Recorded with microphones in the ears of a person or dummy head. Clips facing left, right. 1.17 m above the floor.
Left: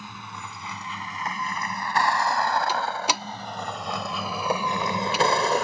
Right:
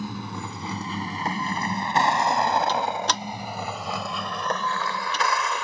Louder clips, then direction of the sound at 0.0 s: Right 8 dB; 35° right (ahead or behind).